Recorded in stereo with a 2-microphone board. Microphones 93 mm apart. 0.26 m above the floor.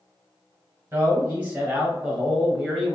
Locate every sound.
0.9 s a man speaking: 25° right (ahead or behind), 1.3 m; by 3.0 s centre (ahead or behind), 1.4 m